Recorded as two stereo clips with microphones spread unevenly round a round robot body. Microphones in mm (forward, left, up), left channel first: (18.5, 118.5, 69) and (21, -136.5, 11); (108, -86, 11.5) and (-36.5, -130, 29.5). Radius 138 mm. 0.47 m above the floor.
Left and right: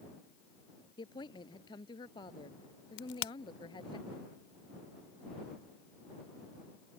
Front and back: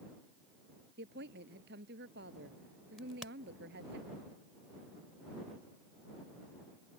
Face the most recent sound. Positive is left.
turn(degrees=105)